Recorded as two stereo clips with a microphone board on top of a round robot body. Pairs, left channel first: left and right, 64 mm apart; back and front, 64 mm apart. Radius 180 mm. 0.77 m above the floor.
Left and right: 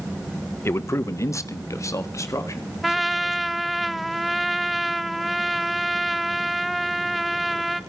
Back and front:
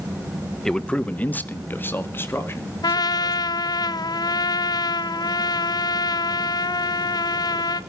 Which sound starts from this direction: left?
A man speaking, at 0.7 s.